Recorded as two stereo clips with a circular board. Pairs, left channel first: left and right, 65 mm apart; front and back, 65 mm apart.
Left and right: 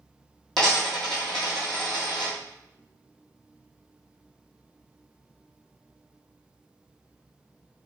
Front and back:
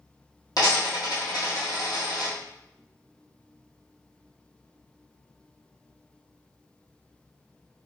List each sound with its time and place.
0.6 s a dropped coin: 5° left, 1.5 m